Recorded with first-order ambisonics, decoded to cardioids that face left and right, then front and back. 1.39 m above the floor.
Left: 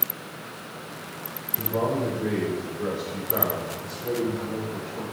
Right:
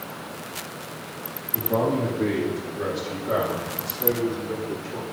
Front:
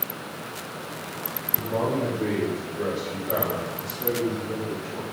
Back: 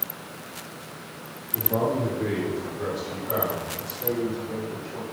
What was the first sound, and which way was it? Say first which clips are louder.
A man speaking: right 3 dB, back 1 dB; 110° right.